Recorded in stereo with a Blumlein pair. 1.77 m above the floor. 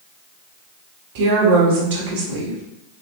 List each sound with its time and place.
1.1 s a woman speaking: 55° right, 1.2 m